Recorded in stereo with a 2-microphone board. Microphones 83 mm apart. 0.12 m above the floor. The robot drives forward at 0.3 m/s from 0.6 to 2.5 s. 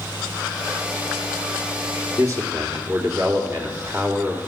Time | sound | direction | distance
2.2 | a man speaking | 40° right (ahead or behind) | 2 m